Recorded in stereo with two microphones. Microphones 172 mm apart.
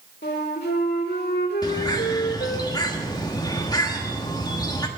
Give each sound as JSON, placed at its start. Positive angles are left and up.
{"t": 0.2, "sound": "a flute", "side_deg": 70, "distance_m": 1.6}
{"t": 1.6, "sound": "a bird", "side_deg": 20, "distance_m": 1.2}